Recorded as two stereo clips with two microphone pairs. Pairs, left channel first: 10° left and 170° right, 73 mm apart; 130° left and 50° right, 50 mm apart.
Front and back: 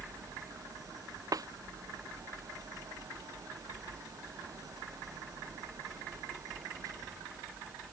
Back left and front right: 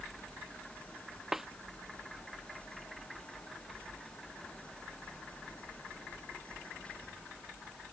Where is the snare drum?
130° right.